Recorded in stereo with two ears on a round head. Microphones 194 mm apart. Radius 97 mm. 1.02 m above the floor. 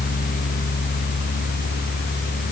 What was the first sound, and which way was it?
Only background noise.